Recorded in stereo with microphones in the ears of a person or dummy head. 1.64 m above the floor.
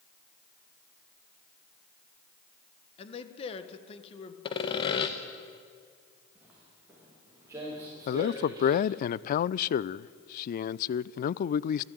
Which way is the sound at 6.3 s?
10° right (ahead or behind).